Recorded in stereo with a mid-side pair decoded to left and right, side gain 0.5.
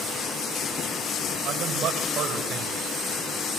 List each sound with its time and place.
1.4 s a man speaking: 65° right, 5.5 m